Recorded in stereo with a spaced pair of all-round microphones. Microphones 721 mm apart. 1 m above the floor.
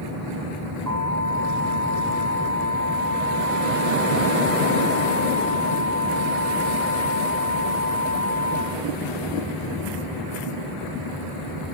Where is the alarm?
65° right (ahead or behind), 9.5 m.